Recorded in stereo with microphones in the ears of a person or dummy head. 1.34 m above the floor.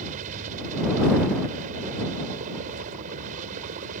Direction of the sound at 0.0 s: 45° right (ahead or behind).